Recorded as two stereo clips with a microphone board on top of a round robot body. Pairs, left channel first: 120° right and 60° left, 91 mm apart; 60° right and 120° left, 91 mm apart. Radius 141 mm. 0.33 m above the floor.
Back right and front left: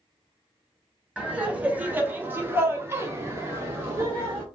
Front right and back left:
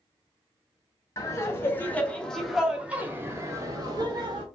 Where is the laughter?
15° right, 1.4 m; by 4.4 s 120° left, 1.4 m.